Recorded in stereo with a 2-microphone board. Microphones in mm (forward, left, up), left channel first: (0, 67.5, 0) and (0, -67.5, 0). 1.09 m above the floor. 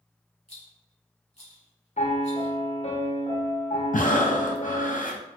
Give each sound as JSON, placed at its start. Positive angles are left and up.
{"t": 0.5, "sound": "a rattle", "side_deg": 50, "distance_m": 1.3}
{"t": 2.0, "sound": "a piano", "side_deg": 50, "distance_m": 0.6}
{"t": 3.9, "sound": "breathing", "side_deg": 75, "distance_m": 0.6}